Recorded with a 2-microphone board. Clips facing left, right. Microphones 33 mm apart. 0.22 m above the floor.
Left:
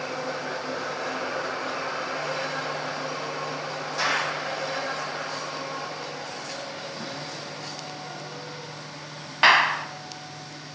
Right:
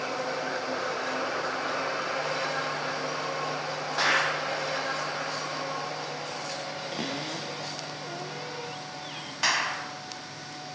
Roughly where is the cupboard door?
Right.